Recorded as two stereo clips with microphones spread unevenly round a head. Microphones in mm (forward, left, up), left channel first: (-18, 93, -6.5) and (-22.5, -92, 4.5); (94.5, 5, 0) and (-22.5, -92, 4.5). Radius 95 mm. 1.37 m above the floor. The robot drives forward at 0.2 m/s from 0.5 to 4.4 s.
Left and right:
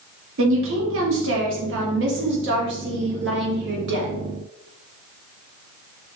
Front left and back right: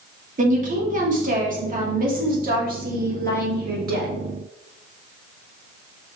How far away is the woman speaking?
About 2.5 m.